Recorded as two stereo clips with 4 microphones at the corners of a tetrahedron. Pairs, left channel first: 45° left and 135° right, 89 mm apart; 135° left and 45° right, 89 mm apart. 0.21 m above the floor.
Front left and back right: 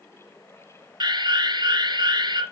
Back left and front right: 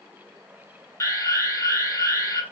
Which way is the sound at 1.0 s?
165° right.